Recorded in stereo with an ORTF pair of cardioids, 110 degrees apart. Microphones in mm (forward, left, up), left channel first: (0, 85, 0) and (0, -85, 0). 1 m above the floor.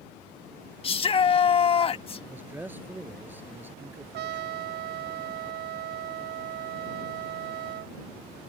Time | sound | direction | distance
0.8 | a shout | 30° left | ?
2.3 | a man speaking | 10° right | ?
4.1 | a trumpet | 65° right | ?